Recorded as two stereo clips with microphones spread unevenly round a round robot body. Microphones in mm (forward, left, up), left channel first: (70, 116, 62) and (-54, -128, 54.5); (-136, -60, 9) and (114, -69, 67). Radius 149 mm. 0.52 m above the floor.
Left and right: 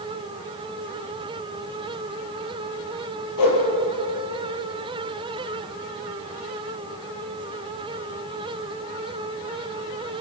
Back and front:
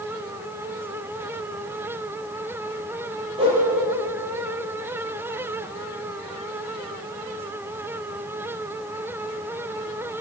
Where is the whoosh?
70° left, 7.5 m.